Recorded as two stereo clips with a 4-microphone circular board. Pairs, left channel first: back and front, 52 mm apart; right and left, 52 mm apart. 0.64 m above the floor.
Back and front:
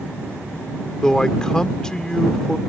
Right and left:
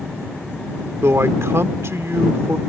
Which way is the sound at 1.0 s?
105° left.